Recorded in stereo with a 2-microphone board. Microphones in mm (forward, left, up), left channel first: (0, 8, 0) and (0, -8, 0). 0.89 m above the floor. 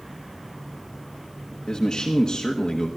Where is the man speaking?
50° left (ahead or behind), 1.2 m.